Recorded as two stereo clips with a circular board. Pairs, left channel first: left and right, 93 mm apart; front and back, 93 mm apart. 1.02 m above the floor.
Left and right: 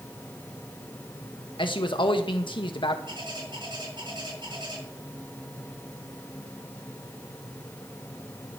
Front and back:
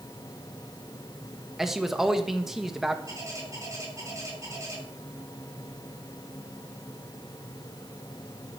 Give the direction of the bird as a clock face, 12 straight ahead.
4 o'clock.